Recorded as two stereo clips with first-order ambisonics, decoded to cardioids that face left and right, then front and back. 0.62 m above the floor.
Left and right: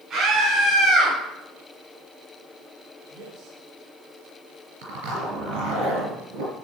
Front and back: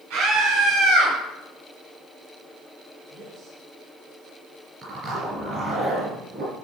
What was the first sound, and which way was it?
A scream, 155° right.